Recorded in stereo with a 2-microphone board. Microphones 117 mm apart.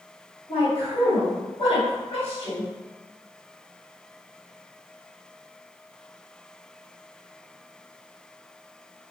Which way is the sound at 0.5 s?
60° left (ahead or behind).